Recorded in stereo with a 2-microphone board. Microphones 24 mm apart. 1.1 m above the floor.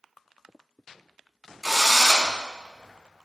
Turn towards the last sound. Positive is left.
turn(degrees=-10)  # may be behind; listen again after turning